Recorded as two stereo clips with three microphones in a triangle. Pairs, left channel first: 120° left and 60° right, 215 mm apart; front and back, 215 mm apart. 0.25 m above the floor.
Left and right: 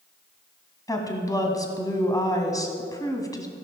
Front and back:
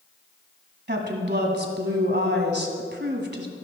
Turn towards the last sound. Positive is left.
turn(degrees=-170)